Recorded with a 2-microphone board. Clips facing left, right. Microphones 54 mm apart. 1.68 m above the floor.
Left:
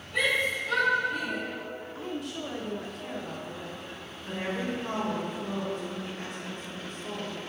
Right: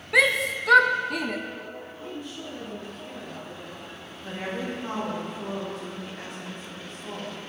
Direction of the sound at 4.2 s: 80° right.